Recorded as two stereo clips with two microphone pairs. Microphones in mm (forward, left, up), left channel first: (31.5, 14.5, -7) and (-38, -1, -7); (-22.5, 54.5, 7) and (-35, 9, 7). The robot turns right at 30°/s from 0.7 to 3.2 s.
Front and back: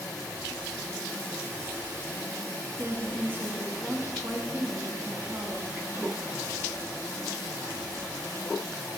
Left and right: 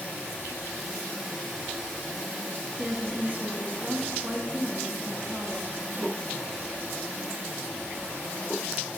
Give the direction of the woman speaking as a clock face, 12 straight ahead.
5 o'clock.